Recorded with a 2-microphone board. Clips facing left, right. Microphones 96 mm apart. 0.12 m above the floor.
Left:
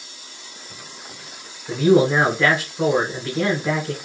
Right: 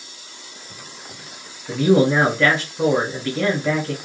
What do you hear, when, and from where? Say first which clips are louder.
1.7 s a man speaking: even; 5° left (ahead or behind), 1.6 m